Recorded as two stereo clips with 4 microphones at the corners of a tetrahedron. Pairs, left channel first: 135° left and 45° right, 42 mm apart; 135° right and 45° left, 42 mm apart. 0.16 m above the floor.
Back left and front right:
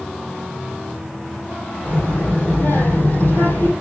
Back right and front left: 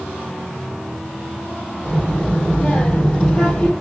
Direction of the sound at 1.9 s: 160° left.